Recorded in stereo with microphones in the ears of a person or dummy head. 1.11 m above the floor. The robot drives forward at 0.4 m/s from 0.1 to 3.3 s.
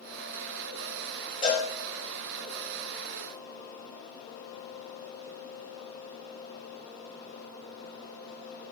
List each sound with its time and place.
1.4 s a cowbell: 30° left (ahead or behind), 2 m